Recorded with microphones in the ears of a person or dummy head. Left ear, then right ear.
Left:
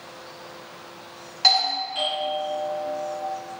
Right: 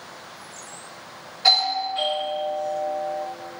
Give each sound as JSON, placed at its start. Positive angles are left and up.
{"t": 1.4, "sound": "a doorbell", "side_deg": 55, "distance_m": 0.8}